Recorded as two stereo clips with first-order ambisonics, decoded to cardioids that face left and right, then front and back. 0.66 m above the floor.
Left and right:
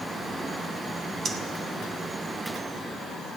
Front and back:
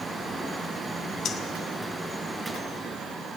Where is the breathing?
35° right, 0.8 m.